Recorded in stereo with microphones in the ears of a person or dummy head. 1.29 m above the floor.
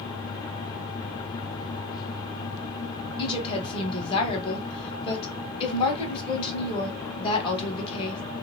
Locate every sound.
3.2 s a woman speaking: 25° left (ahead or behind), 1.2 m